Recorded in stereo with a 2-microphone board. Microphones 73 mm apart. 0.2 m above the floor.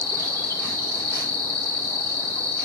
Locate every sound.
0.0 s an insect: 60° right (ahead or behind), 2.0 m